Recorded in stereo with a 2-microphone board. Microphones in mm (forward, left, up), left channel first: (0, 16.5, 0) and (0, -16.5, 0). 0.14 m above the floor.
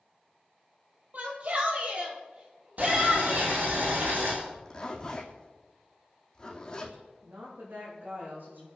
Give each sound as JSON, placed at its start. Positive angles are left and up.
{"t": 1.1, "sound": "a shout", "side_deg": -50, "distance_m": 5.0}
{"t": 2.8, "sound": "boiling", "side_deg": -70, "distance_m": 7.0}
{"t": 4.4, "sound": "a zipper", "side_deg": 20, "distance_m": 3.0}
{"t": 7.2, "sound": "a woman speaking", "side_deg": -75, "distance_m": 9.0}